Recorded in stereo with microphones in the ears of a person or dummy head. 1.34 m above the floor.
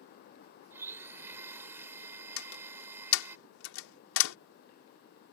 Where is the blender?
15° right (ahead or behind).